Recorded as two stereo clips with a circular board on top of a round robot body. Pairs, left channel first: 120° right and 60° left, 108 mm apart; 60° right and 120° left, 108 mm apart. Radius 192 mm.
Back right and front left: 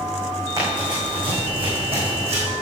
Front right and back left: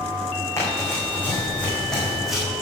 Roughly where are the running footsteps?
Ahead.